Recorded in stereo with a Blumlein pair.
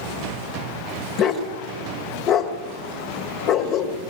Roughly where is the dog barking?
Ahead left.